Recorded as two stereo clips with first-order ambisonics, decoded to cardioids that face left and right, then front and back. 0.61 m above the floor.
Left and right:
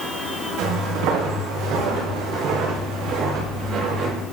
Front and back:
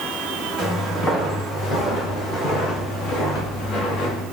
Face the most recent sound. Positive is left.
turn(degrees=-35)